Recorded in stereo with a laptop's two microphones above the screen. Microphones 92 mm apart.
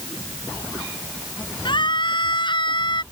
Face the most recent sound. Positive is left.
turn(degrees=60)  # may be behind; listen again after turning